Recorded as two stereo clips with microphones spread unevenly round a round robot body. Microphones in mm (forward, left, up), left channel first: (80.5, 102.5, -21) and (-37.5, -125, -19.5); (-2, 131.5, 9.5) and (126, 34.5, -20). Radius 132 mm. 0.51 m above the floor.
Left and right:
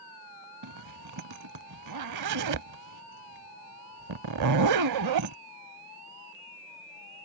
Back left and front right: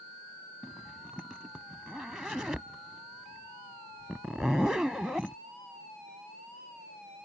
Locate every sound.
0.6 s a zipper: 130° right